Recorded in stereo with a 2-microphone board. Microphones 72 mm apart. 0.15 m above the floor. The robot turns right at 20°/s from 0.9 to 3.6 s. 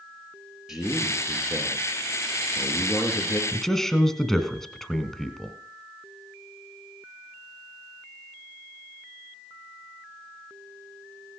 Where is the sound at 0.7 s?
5° right, 3.5 m; by 3.4 s 45° left, 3.5 m.